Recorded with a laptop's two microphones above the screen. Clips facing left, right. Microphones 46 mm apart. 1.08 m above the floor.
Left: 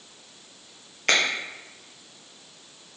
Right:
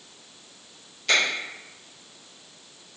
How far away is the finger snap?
About 1.1 m.